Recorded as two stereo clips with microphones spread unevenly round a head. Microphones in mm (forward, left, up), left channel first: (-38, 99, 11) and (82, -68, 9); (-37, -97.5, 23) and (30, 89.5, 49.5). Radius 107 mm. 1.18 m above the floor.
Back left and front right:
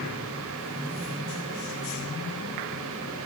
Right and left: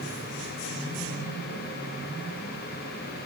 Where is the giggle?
I don't hear a giggle.